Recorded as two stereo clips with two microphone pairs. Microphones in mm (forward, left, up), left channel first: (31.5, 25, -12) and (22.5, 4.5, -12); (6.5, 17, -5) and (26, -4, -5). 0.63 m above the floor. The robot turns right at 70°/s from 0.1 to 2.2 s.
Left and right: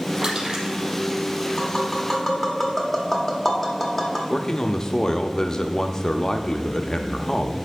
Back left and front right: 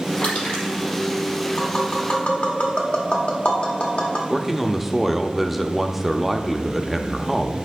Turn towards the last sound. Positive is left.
turn(degrees=25)